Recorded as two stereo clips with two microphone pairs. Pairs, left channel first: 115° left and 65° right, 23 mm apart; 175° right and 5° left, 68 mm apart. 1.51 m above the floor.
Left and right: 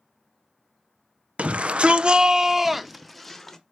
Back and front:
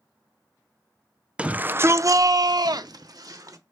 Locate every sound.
1.4 s a shout: 70° right, 0.7 m; by 3.6 s 35° left, 1.1 m